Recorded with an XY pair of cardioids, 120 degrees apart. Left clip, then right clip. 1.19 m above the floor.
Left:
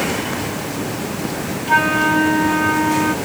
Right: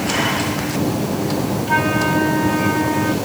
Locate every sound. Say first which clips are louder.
1.7 s a flute: left 4 dB; 15° left, 1.1 m